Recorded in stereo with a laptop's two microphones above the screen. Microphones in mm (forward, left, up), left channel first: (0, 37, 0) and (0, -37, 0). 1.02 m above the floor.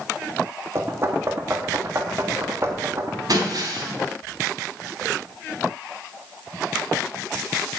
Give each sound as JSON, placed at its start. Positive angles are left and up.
{"t": 0.8, "sound": "knocking", "side_deg": -35, "distance_m": 1.4}
{"t": 3.3, "sound": "breaking glass", "side_deg": -60, "distance_m": 3.0}